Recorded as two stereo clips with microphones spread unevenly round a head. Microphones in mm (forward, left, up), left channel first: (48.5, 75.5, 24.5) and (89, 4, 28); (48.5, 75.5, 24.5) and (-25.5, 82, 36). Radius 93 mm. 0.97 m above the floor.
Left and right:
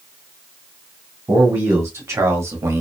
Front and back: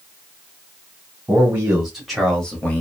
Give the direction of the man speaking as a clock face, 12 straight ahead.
4 o'clock.